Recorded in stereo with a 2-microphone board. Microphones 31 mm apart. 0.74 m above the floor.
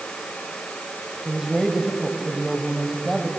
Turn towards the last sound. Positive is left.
turn(degrees=-10)  # may be behind; listen again after turning